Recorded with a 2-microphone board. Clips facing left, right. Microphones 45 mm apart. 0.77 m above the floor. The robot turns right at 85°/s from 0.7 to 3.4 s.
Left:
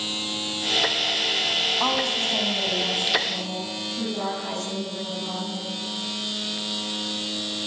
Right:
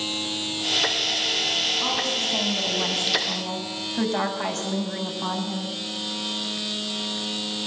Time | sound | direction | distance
1.8 | a woman speaking | 120° left | 6.5 m